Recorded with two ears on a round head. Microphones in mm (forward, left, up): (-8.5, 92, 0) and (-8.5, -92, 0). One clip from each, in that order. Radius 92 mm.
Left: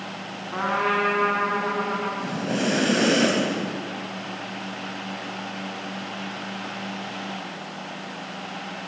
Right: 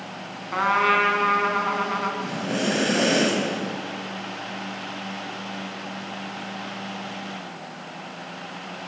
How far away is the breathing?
About 4.5 m.